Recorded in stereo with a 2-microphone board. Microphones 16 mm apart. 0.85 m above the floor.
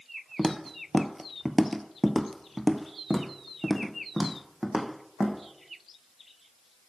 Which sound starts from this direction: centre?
Footsteps, at 0.4 s.